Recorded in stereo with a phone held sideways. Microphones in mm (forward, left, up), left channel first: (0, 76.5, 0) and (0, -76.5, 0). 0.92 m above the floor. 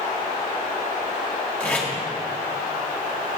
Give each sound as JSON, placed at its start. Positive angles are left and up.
{"t": 1.6, "sound": "tape being pulled", "side_deg": 10, "distance_m": 1.2}